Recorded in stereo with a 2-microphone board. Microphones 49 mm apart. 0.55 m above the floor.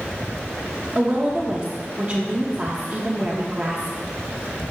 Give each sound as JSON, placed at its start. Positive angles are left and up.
{"t": 0.9, "sound": "a woman speaking", "side_deg": -20, "distance_m": 0.8}